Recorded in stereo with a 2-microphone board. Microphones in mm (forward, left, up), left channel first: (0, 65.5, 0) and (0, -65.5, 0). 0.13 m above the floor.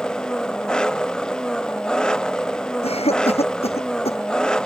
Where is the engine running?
5° left (ahead or behind).